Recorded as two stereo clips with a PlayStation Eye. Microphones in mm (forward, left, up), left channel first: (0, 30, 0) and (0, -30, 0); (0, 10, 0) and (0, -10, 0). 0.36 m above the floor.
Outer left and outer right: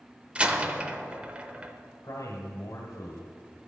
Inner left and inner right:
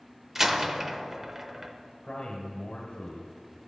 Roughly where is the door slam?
Centre.